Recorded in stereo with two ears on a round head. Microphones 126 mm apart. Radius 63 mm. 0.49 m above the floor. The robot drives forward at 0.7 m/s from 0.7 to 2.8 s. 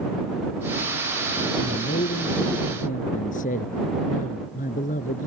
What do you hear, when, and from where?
1.6 s a man speaking: 70° left (ahead or behind); by 5.3 s 65° left (ahead or behind)